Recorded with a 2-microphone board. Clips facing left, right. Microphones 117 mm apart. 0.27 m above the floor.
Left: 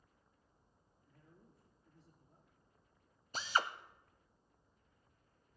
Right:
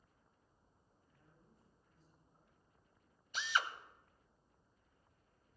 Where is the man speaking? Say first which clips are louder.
Left 5 dB; 75° left (ahead or behind), 4.5 m.